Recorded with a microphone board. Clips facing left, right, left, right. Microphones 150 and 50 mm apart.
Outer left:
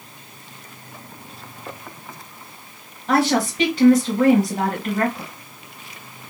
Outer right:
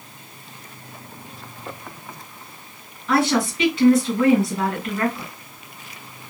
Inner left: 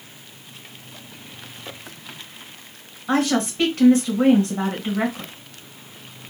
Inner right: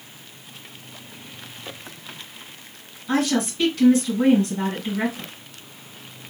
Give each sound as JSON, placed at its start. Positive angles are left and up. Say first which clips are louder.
{"t": 3.1, "sound": "a woman speaking", "louder": "outer left 1 dB, inner left 1 dB", "side_deg": 35, "distance_m": 2.5}